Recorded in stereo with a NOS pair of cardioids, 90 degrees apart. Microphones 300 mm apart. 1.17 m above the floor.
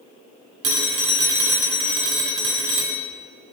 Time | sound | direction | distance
0.6 | a phone ringing | 70° right | 1.9 m